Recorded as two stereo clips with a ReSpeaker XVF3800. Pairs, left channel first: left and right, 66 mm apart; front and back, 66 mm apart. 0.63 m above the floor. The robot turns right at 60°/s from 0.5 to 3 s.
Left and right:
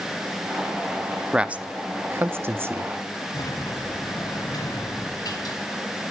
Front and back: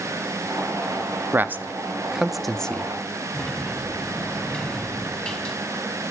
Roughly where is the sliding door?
Left.